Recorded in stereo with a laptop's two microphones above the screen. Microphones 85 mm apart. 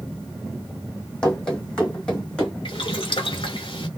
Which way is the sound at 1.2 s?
10° left (ahead or behind).